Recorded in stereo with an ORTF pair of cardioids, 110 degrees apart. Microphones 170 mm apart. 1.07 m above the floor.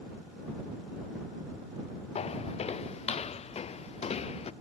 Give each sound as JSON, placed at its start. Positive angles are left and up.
{"t": 2.1, "sound": "footsteps", "azimuth_deg": 40}